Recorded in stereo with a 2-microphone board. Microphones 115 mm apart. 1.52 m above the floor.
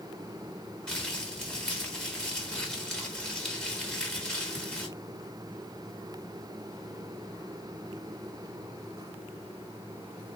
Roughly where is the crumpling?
Centre.